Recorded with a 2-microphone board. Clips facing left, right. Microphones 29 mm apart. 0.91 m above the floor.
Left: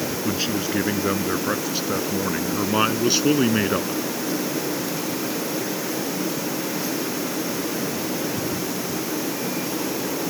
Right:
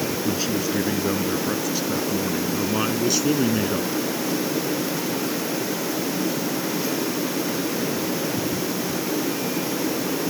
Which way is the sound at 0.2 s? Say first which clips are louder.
Left 1 dB; 25° left (ahead or behind).